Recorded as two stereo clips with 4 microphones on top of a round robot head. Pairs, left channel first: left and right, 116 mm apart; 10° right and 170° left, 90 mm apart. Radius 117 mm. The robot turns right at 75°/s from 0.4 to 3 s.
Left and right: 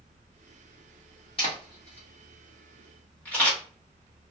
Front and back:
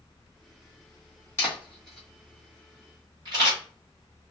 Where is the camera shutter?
40° left, 1.1 m; by 3.6 s 160° left, 1.1 m.